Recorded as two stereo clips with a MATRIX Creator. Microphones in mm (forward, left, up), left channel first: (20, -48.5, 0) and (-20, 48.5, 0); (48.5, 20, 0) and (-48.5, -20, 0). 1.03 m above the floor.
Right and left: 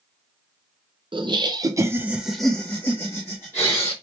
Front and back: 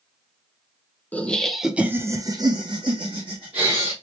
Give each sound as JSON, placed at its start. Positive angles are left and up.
{"t": 1.1, "sound": "laughter", "azimuth_deg": 95, "distance_m": 0.7}